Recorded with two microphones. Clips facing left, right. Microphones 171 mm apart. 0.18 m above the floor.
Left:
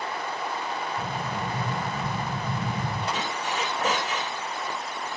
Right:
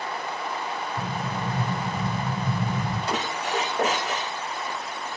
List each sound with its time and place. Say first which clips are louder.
1.0 s an explosion: right 1 dB; 70° right (ahead or behind), 9.5 m
3.1 s a squeak: right 3 dB; 75° right (ahead or behind), 10 m